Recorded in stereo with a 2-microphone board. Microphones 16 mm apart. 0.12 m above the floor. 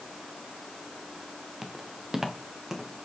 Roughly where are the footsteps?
Right.